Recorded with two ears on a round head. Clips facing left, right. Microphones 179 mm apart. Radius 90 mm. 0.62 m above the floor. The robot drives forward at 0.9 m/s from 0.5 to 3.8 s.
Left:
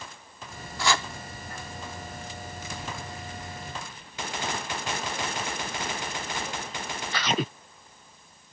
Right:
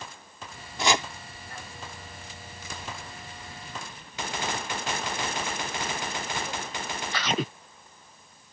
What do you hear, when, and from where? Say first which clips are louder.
0.8 s chopping: right 2 dB; 20° right (ahead or behind); by 1.1 s 15° right (ahead or behind)